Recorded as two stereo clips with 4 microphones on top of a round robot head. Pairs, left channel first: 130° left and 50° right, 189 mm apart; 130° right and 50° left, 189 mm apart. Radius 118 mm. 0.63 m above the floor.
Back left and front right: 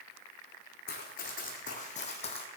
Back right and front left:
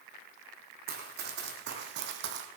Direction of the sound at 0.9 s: 85° left.